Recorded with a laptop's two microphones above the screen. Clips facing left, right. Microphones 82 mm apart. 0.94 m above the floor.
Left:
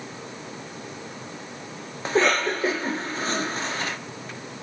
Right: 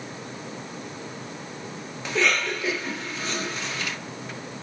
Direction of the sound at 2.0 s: 40° left (ahead or behind).